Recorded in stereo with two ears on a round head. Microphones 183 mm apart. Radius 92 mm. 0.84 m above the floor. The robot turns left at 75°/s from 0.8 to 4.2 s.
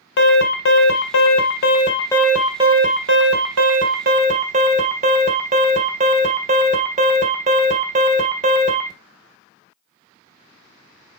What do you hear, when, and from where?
0.2 s an alarm: 115° left, 1.9 m; by 8.9 s 140° right, 1.9 m